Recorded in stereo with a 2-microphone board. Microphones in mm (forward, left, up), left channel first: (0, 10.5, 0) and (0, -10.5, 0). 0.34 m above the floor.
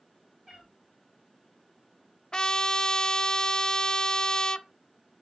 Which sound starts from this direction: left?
A trumpet, at 2.3 s.